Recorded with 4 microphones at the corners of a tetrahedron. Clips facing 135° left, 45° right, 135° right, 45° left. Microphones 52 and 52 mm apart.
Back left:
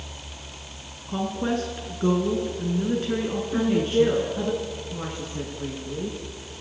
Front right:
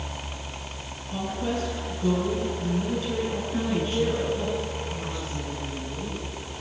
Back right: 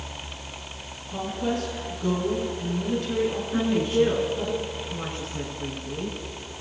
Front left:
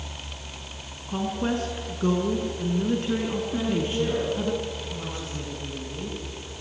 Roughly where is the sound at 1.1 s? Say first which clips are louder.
Back left 3 dB, front left 1 dB; left.